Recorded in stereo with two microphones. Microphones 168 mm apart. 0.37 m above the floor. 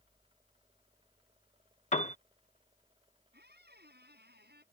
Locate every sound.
1.9 s a piano: 45° left (ahead or behind)
3.3 s a squeak: 75° right (ahead or behind)